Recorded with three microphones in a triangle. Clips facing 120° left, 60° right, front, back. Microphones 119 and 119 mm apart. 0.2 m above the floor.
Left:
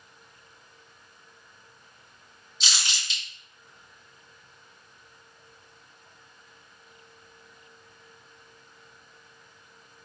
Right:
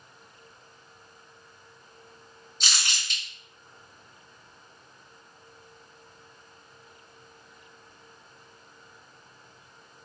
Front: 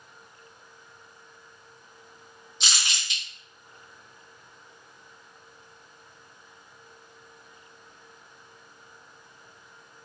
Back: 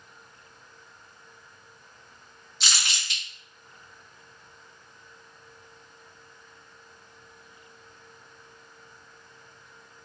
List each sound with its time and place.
2.6 s crumpling: 65° right, 1.8 m